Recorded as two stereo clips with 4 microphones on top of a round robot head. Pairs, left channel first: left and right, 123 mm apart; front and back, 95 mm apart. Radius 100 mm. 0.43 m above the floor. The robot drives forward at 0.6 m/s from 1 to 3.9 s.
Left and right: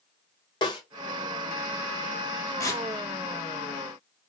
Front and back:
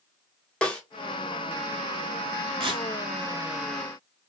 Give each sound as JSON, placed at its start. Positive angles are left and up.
{"t": 0.6, "sound": "a snare drum", "azimuth_deg": 75, "distance_m": 1.3}
{"t": 2.6, "sound": "tearing paper", "azimuth_deg": 155, "distance_m": 1.0}